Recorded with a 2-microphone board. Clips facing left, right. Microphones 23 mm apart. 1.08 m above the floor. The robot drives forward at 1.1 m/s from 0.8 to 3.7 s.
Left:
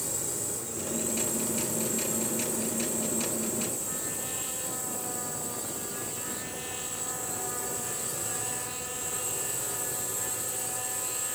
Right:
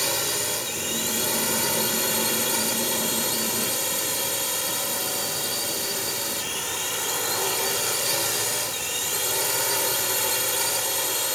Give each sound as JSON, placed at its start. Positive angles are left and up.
{"t": 0.0, "sound": "a drone", "side_deg": -65}